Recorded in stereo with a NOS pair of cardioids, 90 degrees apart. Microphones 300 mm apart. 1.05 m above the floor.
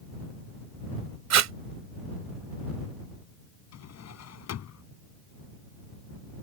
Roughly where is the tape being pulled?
Ahead right.